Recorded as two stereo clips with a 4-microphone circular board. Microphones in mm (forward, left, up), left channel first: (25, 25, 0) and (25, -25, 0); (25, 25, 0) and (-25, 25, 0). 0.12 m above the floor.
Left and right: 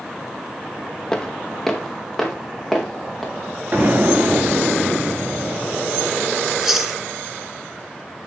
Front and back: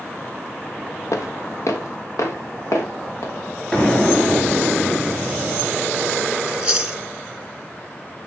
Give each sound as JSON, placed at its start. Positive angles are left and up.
{"t": 1.1, "sound": "footsteps", "azimuth_deg": 10, "distance_m": 1.2}
{"t": 3.7, "sound": "an explosion", "azimuth_deg": -65, "distance_m": 1.2}
{"t": 6.5, "sound": "chewing", "azimuth_deg": -145, "distance_m": 1.1}